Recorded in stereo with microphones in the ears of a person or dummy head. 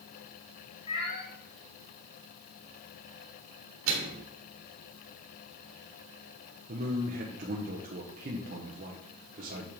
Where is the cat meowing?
35° left (ahead or behind), 2.5 m.